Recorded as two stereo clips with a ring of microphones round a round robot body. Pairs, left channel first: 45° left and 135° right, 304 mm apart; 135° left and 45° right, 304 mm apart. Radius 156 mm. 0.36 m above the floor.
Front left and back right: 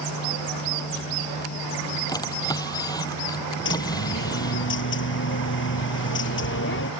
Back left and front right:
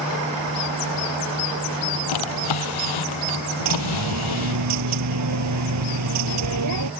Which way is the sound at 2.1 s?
125° left.